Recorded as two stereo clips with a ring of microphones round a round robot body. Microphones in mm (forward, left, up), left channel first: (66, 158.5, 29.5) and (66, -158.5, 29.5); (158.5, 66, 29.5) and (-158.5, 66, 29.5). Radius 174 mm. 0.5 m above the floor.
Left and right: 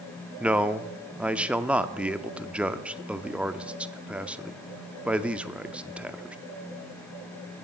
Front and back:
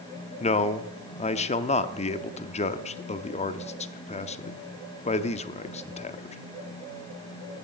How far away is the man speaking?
About 0.6 m.